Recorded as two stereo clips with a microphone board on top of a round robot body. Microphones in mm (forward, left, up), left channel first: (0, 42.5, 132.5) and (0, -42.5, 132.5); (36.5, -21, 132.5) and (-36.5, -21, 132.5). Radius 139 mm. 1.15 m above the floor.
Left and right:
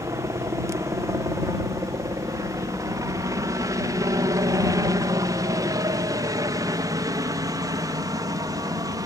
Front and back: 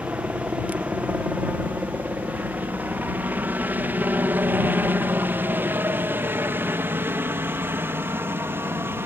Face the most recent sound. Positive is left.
turn(degrees=-125)